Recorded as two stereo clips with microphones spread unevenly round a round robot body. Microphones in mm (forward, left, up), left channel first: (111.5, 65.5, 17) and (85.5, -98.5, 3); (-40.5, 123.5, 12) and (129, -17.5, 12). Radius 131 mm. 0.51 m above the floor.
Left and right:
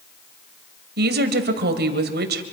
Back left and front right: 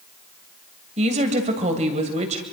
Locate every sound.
1.0 s a woman speaking: 105° right, 2 m